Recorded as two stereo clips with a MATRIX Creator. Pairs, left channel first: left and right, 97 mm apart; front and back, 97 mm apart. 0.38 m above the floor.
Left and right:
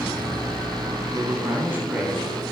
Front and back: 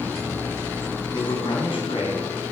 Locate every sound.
1.1 s a man speaking: 35° right, 3.5 m; by 2.2 s 5° right, 3.5 m